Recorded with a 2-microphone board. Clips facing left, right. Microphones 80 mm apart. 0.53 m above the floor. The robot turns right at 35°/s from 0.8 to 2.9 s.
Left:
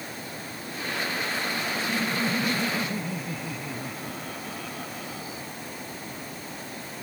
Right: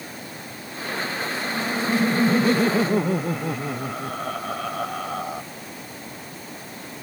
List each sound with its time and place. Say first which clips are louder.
1.4 s laughter: right 5 dB; 125° right; by 5.4 s 75° right